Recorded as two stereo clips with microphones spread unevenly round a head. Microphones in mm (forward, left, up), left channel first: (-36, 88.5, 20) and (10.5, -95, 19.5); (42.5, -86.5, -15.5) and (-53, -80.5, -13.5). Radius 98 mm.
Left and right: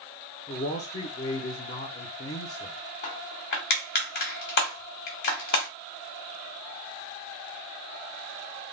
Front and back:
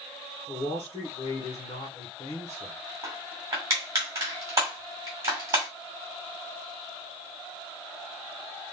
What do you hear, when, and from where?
0.5 s a man speaking: 60° left, 1.0 m
3.0 s crushing: 125° left, 1.8 m